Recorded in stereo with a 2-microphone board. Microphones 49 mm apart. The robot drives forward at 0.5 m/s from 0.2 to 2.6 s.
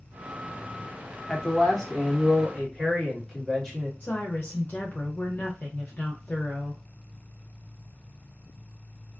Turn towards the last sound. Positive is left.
turn(degrees=40)  # may be behind; listen again after turning